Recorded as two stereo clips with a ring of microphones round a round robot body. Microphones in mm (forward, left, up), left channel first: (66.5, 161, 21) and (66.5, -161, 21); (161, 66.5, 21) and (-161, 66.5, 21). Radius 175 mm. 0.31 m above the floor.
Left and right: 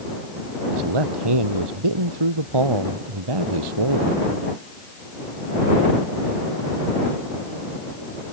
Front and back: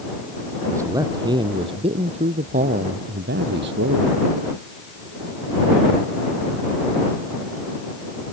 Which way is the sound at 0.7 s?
95° right.